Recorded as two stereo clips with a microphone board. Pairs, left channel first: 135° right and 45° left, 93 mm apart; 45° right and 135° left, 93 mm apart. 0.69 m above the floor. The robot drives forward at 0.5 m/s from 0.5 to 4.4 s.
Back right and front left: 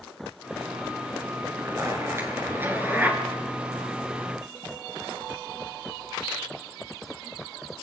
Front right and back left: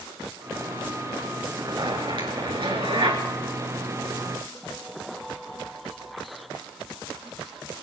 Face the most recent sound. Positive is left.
turn(degrees=125)